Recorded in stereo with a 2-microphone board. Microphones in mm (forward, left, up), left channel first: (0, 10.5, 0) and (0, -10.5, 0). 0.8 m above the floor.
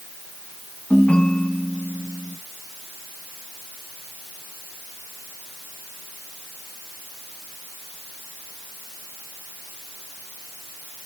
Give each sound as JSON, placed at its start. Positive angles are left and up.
{"t": 0.9, "sound": "a ringtone", "side_deg": 75, "distance_m": 2.5}